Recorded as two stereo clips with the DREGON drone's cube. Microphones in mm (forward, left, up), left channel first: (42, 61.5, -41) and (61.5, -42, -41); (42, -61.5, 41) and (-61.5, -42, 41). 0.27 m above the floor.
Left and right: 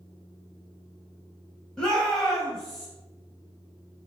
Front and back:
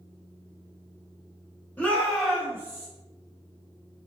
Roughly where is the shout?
Ahead left.